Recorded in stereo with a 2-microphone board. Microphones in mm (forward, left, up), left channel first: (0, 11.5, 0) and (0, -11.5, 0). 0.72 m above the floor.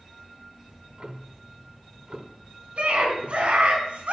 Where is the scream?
70° right (ahead or behind), 5 m.